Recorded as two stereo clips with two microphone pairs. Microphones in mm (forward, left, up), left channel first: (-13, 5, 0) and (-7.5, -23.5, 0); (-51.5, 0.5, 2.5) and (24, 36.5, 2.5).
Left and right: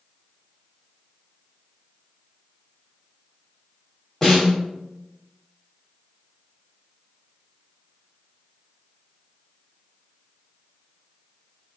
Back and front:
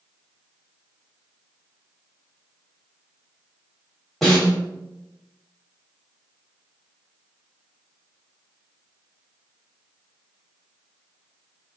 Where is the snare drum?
120° left, 1.5 m.